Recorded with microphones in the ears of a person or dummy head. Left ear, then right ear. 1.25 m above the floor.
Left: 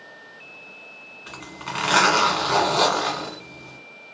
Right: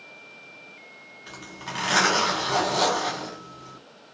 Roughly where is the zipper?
Left.